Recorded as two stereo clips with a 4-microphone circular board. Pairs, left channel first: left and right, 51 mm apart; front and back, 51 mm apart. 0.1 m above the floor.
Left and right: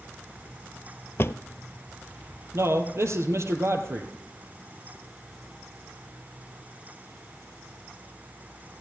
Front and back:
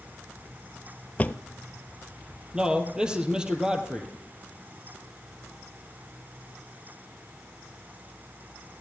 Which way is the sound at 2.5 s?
105° right.